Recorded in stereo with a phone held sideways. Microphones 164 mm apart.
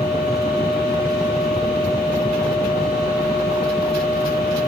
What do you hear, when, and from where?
0.0 s a machine running: 80° left, 4.5 m